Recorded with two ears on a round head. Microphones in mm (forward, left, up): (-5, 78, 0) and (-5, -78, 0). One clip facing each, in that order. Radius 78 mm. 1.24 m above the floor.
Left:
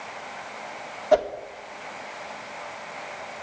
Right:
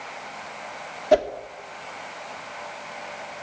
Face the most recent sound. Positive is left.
turn(degrees=-25)  # may be behind; listen again after turning